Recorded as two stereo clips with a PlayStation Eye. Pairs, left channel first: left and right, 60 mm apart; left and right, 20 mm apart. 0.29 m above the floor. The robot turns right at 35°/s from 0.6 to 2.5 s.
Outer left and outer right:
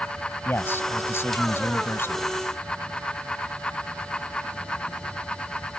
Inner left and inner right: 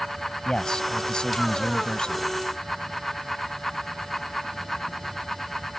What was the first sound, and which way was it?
A man speaking, 60° left.